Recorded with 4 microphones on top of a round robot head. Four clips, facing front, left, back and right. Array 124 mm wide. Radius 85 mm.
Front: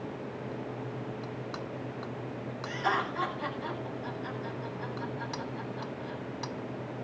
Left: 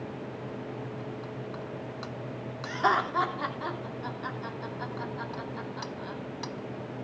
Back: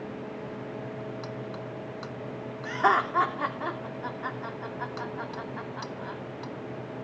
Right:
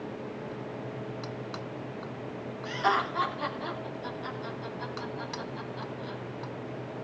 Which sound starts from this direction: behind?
Laughter, at 2.6 s.